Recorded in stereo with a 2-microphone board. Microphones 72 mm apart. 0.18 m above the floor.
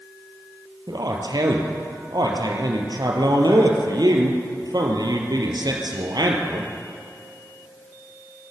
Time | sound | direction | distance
0.9 | a man speaking | 65° right (ahead or behind) | 3.5 m